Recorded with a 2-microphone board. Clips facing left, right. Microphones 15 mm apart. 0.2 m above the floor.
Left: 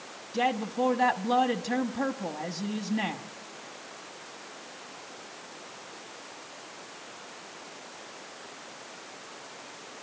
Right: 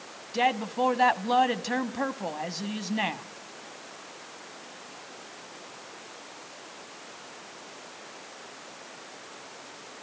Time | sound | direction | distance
0.3 | a woman speaking | 25° right (ahead or behind) | 1.1 m